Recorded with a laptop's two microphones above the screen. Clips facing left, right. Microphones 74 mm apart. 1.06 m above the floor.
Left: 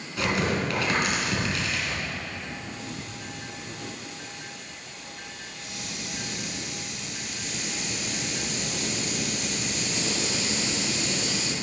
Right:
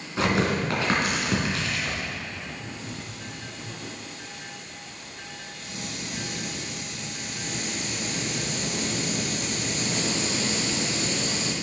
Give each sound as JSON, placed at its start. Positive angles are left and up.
{"t": 0.2, "sound": "tearing paper", "side_deg": -30, "distance_m": 2.5}
{"t": 2.6, "sound": "a hiss", "side_deg": -40, "distance_m": 1.3}